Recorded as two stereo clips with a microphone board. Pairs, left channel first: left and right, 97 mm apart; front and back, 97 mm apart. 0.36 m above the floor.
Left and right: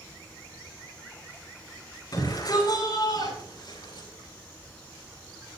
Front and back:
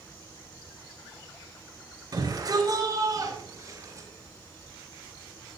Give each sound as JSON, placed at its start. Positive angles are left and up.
{"t": 2.1, "sound": "a shout", "azimuth_deg": 135, "distance_m": 7.5}